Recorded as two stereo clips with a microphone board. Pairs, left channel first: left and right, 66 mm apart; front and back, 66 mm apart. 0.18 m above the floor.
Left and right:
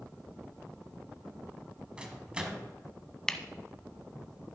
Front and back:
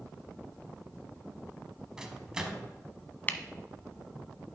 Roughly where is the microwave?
Behind right.